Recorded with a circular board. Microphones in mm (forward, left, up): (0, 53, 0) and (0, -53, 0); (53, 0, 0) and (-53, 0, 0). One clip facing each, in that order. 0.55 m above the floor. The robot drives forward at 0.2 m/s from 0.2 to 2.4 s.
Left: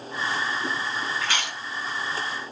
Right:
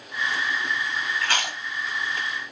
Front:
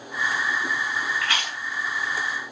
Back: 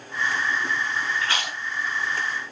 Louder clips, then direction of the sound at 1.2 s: Right 2 dB, even; 125° right.